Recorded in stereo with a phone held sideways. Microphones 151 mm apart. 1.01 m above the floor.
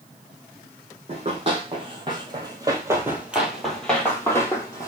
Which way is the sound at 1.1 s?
40° right (ahead or behind).